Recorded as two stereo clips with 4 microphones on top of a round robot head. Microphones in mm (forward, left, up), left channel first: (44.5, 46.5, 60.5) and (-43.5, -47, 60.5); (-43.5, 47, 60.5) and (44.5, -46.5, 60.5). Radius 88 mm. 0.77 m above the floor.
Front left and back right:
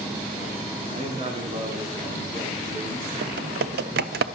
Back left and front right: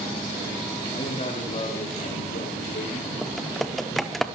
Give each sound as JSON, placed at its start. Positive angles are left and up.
{"t": 0.9, "sound": "a man speaking", "azimuth_deg": 180, "distance_m": 2.0}
{"t": 3.2, "sound": "typing on a keyboard", "azimuth_deg": -140, "distance_m": 0.6}